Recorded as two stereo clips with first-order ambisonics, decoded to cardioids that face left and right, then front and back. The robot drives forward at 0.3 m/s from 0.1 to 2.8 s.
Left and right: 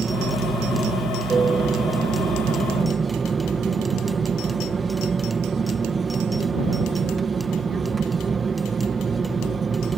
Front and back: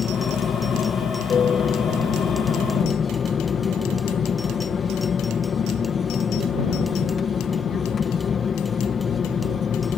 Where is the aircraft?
30° right; by 10.0 s 40° right.